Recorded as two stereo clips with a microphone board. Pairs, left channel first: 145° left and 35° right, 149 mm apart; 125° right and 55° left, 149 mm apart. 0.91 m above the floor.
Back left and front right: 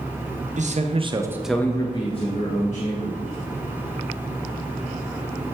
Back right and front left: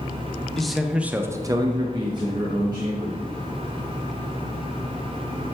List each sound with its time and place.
0.6 s a man speaking: 35° right, 0.8 m; by 3.2 s 120° left, 1.4 m